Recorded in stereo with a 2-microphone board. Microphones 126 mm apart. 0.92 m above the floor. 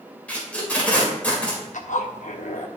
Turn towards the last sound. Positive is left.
turn(degrees=75)  # may be behind; listen again after turning